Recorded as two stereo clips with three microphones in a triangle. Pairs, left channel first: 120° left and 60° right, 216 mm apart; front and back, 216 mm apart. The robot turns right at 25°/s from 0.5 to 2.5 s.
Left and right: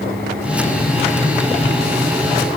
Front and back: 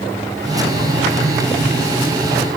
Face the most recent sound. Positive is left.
No sound to turn to.